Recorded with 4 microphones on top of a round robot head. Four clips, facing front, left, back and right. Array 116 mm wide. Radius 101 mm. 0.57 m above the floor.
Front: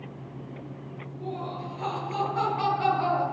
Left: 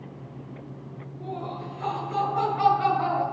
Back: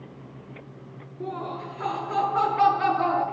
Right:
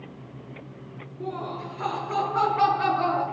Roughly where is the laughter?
Behind right.